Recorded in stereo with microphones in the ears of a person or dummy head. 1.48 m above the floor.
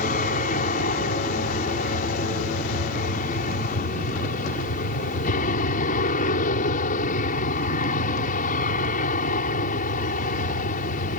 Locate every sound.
0.0 s an aircraft: 45° left (ahead or behind)